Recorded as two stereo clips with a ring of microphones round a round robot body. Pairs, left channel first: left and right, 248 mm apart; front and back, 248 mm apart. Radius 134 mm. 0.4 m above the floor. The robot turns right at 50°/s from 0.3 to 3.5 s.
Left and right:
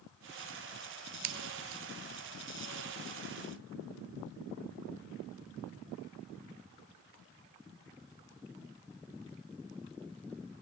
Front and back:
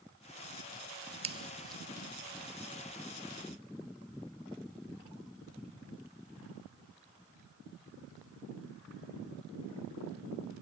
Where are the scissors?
110° right; by 1.8 s 85° right.